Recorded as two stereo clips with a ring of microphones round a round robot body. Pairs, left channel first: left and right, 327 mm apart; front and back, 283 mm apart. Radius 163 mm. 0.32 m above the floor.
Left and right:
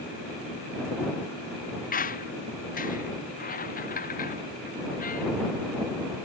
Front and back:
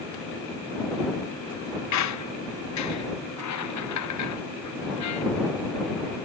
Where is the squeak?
25° left.